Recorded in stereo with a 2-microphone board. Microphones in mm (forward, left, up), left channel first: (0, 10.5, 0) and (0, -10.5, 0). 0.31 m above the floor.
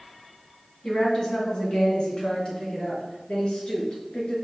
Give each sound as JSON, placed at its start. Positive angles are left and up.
{"t": 0.8, "sound": "a woman speaking", "side_deg": 35, "distance_m": 2.0}